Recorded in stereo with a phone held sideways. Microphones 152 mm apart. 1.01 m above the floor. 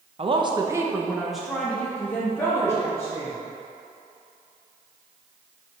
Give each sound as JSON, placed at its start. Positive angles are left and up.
{"t": 0.2, "sound": "a woman speaking", "side_deg": -40, "distance_m": 0.6}